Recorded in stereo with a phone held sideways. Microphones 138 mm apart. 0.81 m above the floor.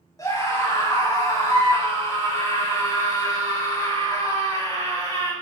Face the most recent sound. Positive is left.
turn(degrees=25)  # may be behind; listen again after turning